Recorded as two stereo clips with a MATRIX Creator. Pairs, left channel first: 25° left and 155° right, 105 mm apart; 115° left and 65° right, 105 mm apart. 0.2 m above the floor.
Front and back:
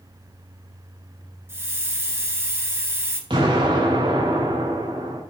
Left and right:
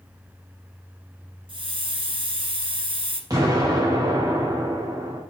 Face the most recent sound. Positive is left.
turn(degrees=-120)